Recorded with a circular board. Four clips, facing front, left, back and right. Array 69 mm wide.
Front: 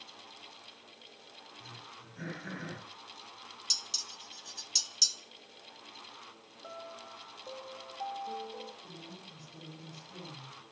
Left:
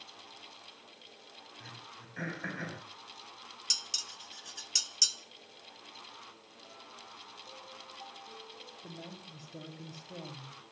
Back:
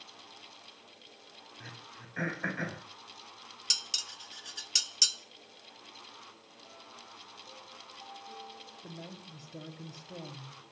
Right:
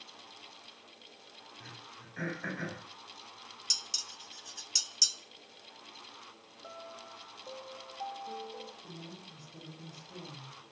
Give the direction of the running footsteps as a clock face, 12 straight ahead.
I don't hear running footsteps.